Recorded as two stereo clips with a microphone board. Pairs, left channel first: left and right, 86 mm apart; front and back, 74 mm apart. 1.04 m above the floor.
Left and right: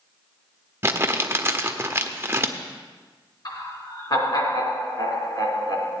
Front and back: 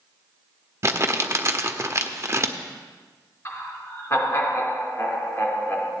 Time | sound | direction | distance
0.8 | crumpling | 145° right | 0.9 m
3.5 | laughter | 55° left | 3 m